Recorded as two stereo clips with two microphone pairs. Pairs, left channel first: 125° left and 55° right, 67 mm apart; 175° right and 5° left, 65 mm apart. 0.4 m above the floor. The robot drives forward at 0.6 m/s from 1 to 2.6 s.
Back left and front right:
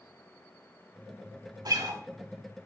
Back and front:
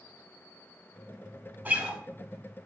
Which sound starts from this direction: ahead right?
A guitar, at 1.6 s.